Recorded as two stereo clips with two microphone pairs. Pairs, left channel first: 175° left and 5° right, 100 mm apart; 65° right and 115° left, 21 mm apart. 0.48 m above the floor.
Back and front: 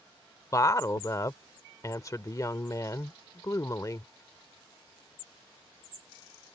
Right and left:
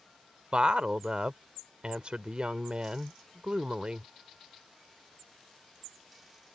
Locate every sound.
0.5 s a woman speaking: 125° left